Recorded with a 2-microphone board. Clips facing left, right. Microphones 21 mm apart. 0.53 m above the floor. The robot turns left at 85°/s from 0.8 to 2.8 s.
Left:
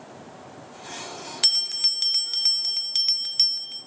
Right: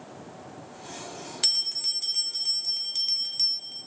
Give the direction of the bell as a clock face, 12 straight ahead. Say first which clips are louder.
Left 4 dB; 7 o'clock.